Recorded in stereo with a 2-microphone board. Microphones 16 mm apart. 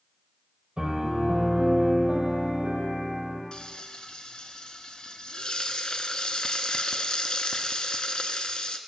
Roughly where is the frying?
Left.